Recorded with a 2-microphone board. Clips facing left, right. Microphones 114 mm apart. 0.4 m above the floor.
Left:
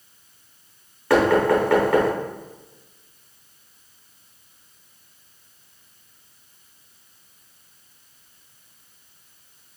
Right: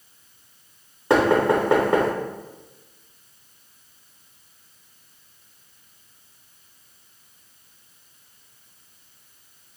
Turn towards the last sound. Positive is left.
turn(degrees=-20)  # may be behind; listen again after turning